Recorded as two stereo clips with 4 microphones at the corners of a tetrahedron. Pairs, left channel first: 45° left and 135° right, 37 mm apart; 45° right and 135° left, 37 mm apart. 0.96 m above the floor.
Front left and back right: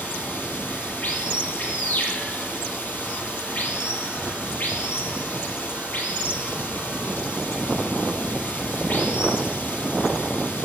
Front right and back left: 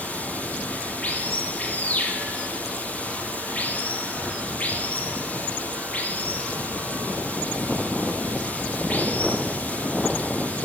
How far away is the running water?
About 4.5 m.